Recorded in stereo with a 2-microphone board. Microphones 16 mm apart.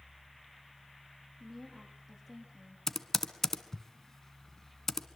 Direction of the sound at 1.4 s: 5° left (ahead or behind).